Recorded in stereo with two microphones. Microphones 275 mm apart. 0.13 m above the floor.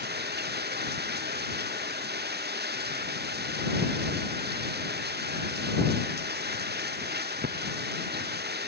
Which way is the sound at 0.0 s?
35° right (ahead or behind).